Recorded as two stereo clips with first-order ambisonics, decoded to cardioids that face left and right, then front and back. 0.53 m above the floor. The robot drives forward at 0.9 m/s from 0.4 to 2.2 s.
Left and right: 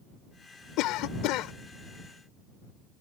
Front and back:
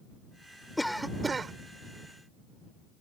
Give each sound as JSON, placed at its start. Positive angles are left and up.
{"t": 0.8, "sound": "a cough", "azimuth_deg": 85}